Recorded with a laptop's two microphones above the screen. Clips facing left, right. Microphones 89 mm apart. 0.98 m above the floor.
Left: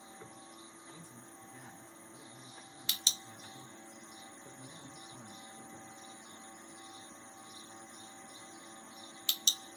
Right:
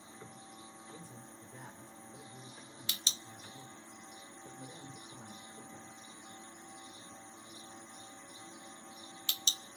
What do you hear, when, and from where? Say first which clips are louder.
0.9 s a man speaking: right 2 dB; 55° right (ahead or behind), 4 m